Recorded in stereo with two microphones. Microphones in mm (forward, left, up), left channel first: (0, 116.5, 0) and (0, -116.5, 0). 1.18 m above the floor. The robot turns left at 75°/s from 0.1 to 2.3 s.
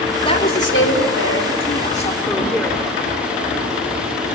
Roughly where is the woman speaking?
Behind.